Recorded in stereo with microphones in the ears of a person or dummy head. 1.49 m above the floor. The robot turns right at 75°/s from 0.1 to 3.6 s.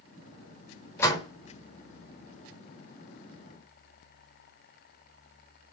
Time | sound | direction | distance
1.0 | a door slam | 5° left (ahead or behind) | 3.5 m